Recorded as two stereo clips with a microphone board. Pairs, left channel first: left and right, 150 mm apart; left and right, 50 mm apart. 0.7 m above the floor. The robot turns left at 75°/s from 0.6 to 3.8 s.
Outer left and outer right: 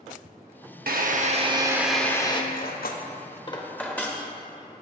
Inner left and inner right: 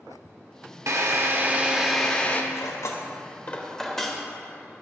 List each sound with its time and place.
0.9 s a drill: 100° right, 0.5 m; by 2.4 s 145° left, 0.5 m
2.5 s cutlery clinking: 70° left (ahead or behind), 0.7 m; by 4.2 s 10° left (ahead or behind), 0.7 m